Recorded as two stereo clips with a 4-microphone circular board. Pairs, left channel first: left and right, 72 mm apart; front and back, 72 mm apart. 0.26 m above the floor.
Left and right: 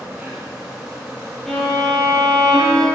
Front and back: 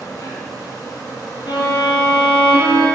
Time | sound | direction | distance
0.0 | an insect | 15° right | 3 m
1.5 | a violin | straight ahead | 2.0 m